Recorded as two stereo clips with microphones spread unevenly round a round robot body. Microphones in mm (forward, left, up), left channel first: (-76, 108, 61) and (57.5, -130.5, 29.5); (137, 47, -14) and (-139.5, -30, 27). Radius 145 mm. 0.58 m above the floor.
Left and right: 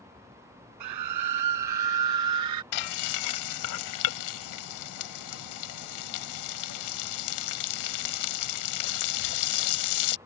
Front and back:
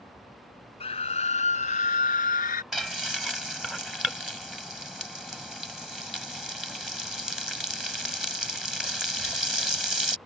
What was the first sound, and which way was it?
A scream, 55° right.